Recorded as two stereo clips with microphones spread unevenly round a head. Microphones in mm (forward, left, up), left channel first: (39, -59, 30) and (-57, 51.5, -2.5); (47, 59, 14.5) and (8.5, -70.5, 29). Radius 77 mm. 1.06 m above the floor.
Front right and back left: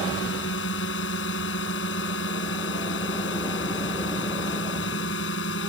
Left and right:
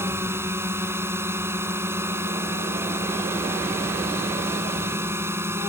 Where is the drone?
35° right.